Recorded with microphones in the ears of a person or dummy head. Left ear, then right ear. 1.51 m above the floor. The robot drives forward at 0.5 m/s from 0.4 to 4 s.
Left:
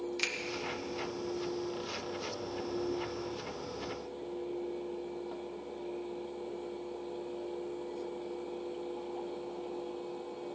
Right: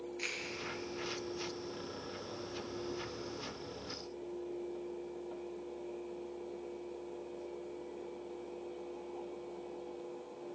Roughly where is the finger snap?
Left.